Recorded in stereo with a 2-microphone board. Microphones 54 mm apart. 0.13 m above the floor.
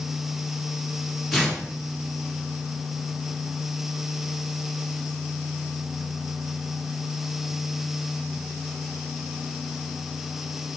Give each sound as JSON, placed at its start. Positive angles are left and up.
{"t": 1.3, "sound": "tearing paper", "side_deg": -5, "distance_m": 1.8}